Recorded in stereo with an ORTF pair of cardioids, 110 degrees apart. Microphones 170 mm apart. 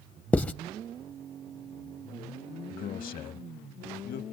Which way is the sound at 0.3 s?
10° left.